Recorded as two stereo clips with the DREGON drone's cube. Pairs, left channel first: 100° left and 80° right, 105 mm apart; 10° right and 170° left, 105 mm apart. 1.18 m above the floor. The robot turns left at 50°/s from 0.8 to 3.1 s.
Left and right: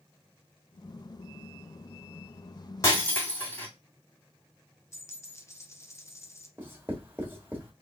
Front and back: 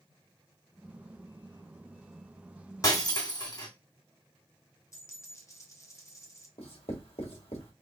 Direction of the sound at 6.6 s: 10° right.